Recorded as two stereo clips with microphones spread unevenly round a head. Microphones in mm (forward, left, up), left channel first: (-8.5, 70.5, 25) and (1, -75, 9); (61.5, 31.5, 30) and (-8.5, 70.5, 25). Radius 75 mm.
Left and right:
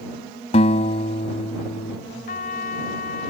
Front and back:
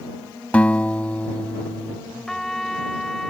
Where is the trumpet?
55° left.